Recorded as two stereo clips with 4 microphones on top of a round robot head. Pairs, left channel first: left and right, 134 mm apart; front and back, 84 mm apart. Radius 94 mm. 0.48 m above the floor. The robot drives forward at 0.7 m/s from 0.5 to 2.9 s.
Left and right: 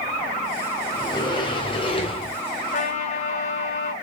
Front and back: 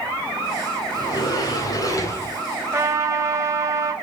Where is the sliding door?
35° left, 3.5 m; by 2.4 s 50° left, 2.5 m.